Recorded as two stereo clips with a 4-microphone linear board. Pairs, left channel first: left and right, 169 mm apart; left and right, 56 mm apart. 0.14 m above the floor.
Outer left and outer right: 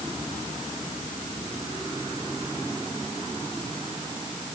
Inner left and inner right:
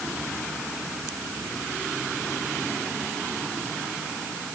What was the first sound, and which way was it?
Only background noise.